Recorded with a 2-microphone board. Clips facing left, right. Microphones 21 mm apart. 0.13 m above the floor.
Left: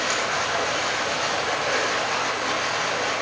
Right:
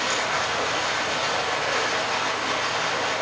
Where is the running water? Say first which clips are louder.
Even; 20° left (ahead or behind), 3.5 m.